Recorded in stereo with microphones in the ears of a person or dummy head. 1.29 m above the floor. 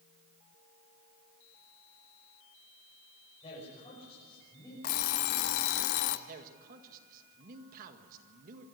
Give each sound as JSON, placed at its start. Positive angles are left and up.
{"t": 3.4, "sound": "a man speaking", "side_deg": 30, "distance_m": 7.0}
{"t": 4.8, "sound": "an alarm clock", "side_deg": 45, "distance_m": 0.9}
{"t": 6.3, "sound": "a man speaking", "side_deg": -50, "distance_m": 2.0}